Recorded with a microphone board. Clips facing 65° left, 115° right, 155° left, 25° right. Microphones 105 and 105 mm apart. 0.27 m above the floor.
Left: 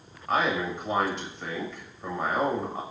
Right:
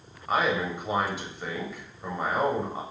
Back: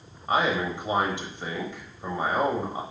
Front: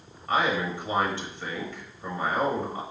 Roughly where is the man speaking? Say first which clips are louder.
Even, back 1 dB; behind.